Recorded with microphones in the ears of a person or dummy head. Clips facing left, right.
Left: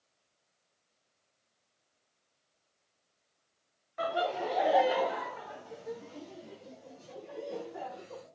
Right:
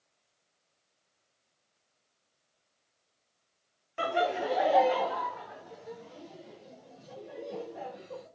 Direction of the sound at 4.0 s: 40° right (ahead or behind).